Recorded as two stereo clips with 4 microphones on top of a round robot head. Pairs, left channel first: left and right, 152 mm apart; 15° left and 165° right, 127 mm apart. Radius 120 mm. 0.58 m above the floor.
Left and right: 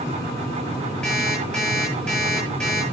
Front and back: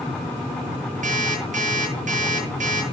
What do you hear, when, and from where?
1.0 s an alarm clock: 175° left, 9.5 m